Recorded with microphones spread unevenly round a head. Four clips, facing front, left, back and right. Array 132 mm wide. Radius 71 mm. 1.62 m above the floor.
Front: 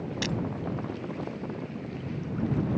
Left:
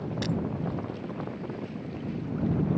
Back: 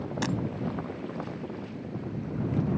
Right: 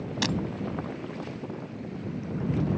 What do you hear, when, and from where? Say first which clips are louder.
0.2 s breaking glass: right 2 dB, back 3 dB; 140° right